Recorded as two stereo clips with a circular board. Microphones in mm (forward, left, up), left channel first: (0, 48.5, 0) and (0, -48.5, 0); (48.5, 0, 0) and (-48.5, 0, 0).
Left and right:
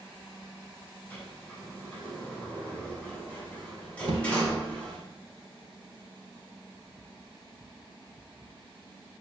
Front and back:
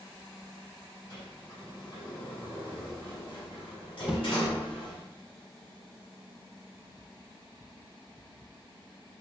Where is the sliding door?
15° left, 3 m.